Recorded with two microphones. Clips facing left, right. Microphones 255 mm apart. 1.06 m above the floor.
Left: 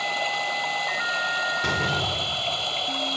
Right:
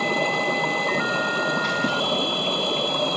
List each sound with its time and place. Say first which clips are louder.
0.0 s running water: right 9 dB; 60° right (ahead or behind)
1.6 s a door slam: right 4 dB; 85° left